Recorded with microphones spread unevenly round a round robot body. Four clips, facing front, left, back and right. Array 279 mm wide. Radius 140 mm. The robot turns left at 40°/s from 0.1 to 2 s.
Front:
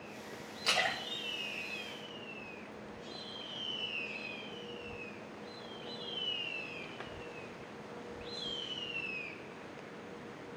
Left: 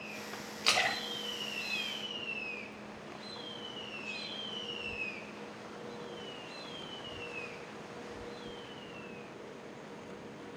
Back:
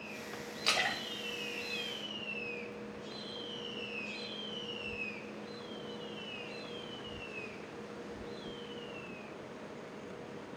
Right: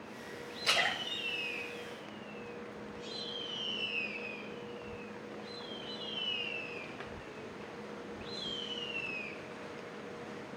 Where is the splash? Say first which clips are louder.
Left 1 dB, front 1 dB; 90° left, 3.5 m; by 2.7 s 40° left, 3.5 m.